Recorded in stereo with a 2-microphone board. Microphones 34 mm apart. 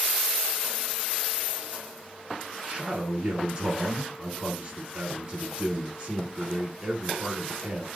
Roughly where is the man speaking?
Right.